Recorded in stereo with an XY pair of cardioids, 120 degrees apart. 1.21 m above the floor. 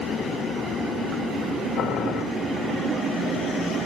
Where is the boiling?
70° left, 4.5 m.